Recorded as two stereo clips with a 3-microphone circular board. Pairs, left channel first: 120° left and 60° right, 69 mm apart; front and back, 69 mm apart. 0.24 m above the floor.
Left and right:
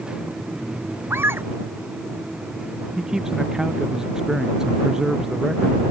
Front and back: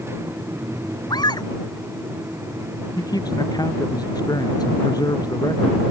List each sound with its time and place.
1.1 s a scream: 5° right
3.0 s a man speaking: 20° left